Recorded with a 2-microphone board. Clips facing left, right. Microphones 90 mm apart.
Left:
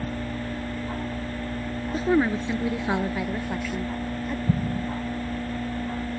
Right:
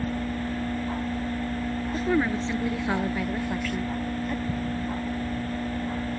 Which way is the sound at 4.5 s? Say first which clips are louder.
Left 3 dB; 60° left (ahead or behind).